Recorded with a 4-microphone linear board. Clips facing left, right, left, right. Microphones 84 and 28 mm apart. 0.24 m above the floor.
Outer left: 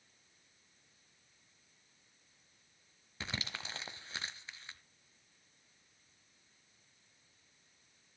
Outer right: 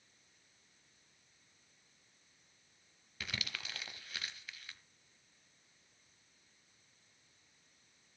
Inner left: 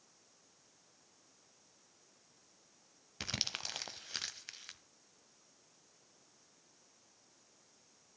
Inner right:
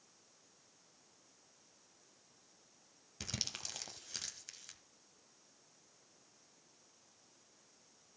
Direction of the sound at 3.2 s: 25° left (ahead or behind).